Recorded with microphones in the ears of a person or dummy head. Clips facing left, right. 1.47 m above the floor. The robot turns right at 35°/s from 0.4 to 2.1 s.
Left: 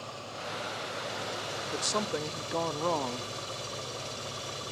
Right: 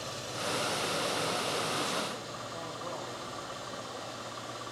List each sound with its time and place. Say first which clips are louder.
0.0 s an engine running: right 3 dB; 20° right, 4 m; by 4.7 s 40° left, 4 m
1.7 s a woman speaking: left 3 dB; 70° left (ahead or behind), 0.5 m; by 3.3 s 75° left (ahead or behind), 0.5 m